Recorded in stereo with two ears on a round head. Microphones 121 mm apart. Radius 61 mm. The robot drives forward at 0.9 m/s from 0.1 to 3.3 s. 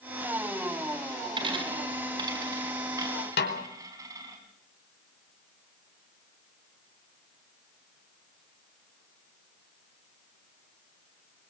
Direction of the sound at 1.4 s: 40° right (ahead or behind).